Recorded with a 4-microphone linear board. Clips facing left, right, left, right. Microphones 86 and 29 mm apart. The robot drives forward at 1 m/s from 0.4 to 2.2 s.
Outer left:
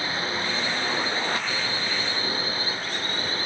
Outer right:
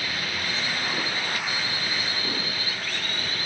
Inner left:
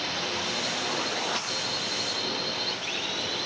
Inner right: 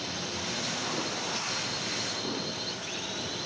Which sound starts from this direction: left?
A drone, at 0.0 s.